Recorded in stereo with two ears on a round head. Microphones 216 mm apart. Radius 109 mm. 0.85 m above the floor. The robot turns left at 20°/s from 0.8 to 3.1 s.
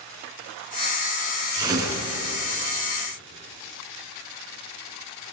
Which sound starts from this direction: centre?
Tearing paper, at 1.5 s.